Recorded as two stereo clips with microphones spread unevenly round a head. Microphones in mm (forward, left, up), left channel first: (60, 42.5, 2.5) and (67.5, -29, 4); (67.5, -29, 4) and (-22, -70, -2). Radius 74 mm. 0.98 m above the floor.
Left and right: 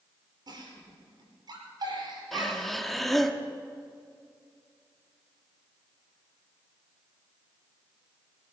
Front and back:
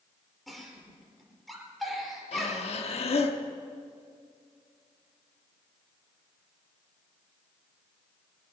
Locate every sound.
0.5 s a giggle: 65° right, 5 m
2.3 s breathing: 10° left, 1.2 m